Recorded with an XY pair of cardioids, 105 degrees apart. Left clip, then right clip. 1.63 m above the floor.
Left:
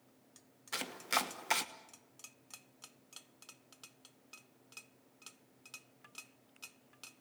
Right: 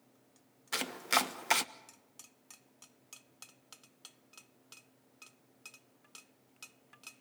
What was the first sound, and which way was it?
Chopping, 30° right.